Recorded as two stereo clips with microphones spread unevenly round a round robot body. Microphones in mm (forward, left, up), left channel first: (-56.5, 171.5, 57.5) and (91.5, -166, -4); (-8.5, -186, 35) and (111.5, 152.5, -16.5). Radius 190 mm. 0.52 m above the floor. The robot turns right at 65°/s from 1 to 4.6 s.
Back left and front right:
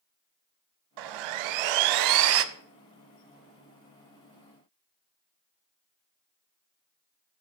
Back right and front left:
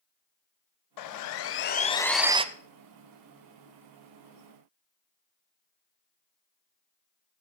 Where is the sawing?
100° right, 0.5 m; by 2.5 s 5° right, 0.5 m.